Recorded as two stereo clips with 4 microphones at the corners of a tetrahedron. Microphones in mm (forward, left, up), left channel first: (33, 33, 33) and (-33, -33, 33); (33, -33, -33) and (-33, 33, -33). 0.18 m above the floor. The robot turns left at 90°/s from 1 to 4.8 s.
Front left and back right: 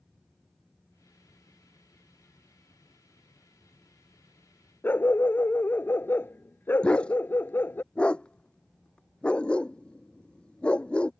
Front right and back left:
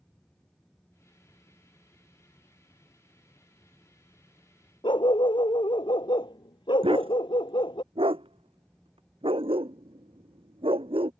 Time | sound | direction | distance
4.8 | a dog barking | 20° right | ?
6.8 | a dog barking | 125° left | ?